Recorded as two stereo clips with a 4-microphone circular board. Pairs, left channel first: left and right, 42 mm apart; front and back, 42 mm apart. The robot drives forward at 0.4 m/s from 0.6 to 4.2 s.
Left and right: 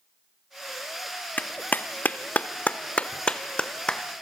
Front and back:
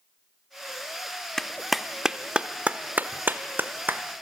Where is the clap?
75° left, 0.6 m; by 4.0 s 155° left, 1.1 m.